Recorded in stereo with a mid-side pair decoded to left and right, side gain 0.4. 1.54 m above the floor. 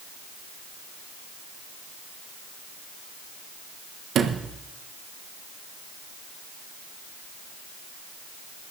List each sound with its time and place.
4.2 s a sliding door: 70° right, 1.5 m